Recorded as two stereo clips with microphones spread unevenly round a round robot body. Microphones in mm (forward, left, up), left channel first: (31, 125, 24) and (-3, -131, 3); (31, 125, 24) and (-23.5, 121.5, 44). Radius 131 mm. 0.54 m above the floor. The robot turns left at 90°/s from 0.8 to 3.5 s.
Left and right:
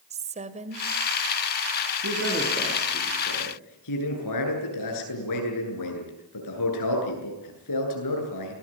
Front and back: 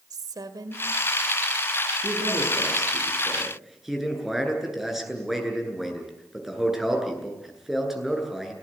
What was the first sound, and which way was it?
A woman speaking, 160° right.